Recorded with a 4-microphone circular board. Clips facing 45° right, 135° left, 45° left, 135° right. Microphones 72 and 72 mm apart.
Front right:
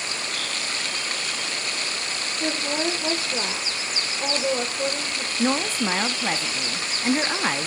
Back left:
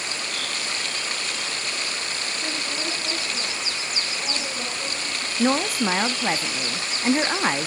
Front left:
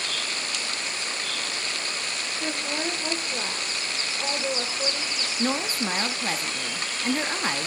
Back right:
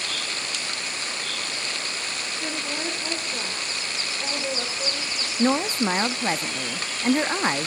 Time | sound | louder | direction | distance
2.4 | a woman speaking | front right 8 dB, front left 1 dB | 30° right | 2.5 m
5.4 | a woman speaking | back left 2 dB, back right 6 dB | 160° right | 0.8 m